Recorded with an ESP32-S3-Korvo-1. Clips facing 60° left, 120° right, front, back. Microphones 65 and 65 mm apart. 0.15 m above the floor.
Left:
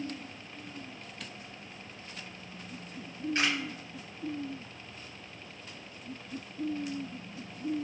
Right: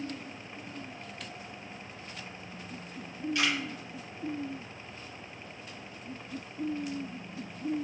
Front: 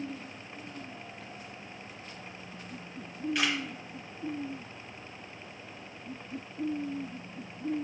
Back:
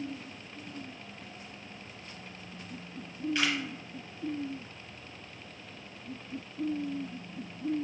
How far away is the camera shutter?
About 1.9 m.